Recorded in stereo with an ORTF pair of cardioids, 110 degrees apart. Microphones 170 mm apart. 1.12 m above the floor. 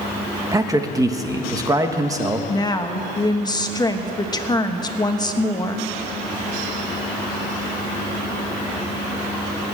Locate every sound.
0.5 s a man speaking: 20° right, 1.4 m
2.5 s a woman speaking: 25° left, 1.2 m